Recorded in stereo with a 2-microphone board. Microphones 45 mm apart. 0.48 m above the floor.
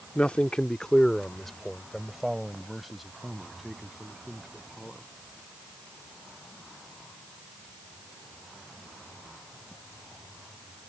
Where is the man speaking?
25° left (ahead or behind); by 5.1 s 5° right (ahead or behind).